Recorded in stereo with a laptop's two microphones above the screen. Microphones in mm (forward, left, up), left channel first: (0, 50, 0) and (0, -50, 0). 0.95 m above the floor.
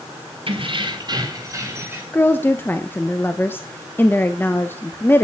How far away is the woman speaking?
About 0.8 m.